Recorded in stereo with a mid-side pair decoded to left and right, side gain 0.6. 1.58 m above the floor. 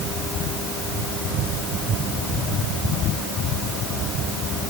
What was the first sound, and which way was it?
Only background noise.